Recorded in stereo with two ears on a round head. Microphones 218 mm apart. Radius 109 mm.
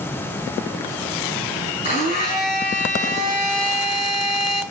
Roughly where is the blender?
Left.